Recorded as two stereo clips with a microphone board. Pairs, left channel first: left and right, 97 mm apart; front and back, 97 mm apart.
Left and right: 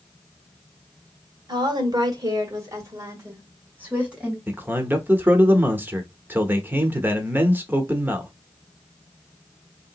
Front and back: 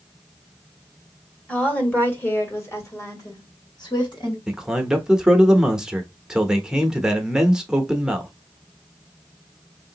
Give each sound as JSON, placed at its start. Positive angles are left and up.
{"t": 1.5, "sound": "a woman speaking", "azimuth_deg": -75, "distance_m": 1.8}
{"t": 4.5, "sound": "a man speaking", "azimuth_deg": -110, "distance_m": 0.8}